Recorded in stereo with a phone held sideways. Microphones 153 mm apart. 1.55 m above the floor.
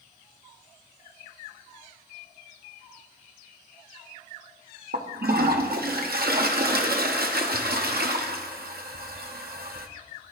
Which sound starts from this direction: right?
A toilet flushing, at 4.9 s.